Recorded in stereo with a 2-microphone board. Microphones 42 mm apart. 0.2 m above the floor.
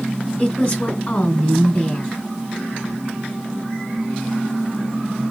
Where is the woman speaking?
20° left (ahead or behind), 1.2 m.